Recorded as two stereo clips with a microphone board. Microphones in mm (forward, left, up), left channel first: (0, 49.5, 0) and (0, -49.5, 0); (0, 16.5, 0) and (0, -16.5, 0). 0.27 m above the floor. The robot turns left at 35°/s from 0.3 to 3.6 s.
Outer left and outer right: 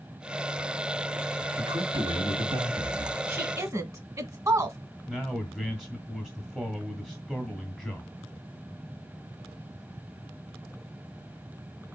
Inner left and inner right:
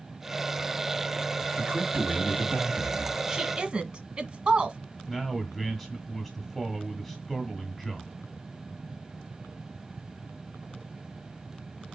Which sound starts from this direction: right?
A woman speaking, at 3.3 s.